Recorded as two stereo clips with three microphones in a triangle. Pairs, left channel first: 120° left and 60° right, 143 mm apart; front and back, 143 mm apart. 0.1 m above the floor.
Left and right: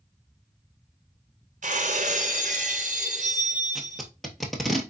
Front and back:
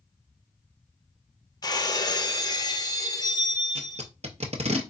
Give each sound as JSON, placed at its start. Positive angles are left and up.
{"t": 1.6, "sound": "breaking glass", "azimuth_deg": -60, "distance_m": 0.7}
{"t": 3.8, "sound": "tape being pulled", "azimuth_deg": -150, "distance_m": 1.0}